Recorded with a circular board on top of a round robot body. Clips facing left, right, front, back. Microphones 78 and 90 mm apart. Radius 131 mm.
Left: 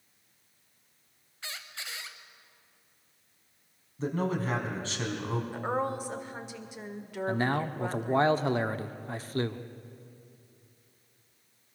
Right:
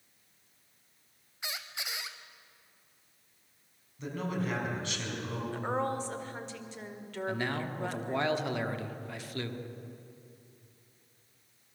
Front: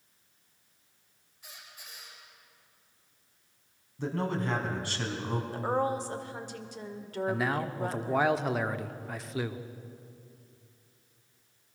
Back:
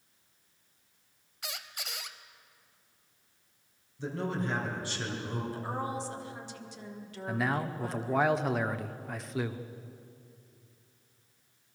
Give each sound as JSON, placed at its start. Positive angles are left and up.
{"t": 1.4, "sound": "a squeak", "azimuth_deg": -165, "distance_m": 0.8}
{"t": 4.0, "sound": "a man speaking", "azimuth_deg": 35, "distance_m": 4.0}
{"t": 5.5, "sound": "a woman speaking", "azimuth_deg": 15, "distance_m": 2.0}
{"t": 7.3, "sound": "a man speaking", "azimuth_deg": 90, "distance_m": 1.2}